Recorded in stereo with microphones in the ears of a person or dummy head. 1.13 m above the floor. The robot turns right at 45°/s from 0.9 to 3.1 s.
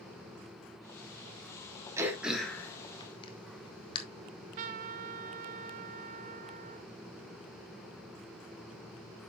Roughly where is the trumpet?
Right.